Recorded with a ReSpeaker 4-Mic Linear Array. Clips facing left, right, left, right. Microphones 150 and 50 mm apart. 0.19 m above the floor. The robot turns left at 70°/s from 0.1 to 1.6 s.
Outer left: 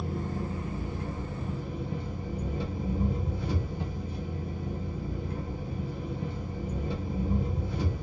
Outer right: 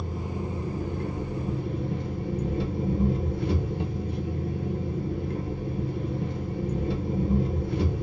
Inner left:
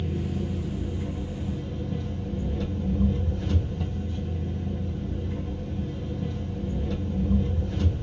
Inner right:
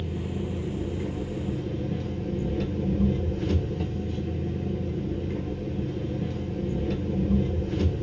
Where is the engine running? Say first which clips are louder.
Outer right 1 dB, inner left 1 dB; straight ahead, 1.0 m; by 8.0 s 105° right, 1.0 m.